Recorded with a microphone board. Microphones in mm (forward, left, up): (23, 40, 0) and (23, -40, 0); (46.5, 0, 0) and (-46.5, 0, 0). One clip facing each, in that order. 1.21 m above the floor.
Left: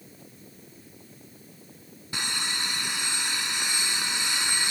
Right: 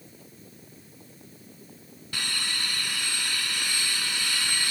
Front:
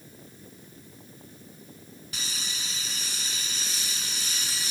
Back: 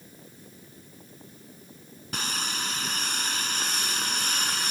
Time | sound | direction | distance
2.1 | sawing | 155° left | ?